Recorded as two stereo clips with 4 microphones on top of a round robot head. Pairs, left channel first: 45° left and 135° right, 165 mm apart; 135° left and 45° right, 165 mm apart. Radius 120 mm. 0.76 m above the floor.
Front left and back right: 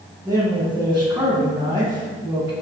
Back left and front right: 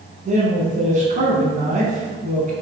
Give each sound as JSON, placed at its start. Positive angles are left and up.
{"t": 0.2, "sound": "a man speaking", "azimuth_deg": -55, "distance_m": 1.1}